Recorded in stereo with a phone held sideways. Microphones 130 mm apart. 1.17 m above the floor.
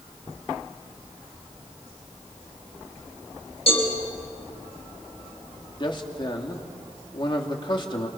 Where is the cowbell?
50° left (ahead or behind), 6 m.